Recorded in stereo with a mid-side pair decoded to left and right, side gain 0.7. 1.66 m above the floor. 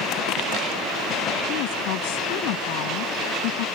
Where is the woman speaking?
65° left; by 3.6 s 70° left.